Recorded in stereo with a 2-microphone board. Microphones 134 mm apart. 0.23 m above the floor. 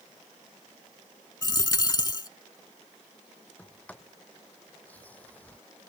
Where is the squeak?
I don't hear a squeak.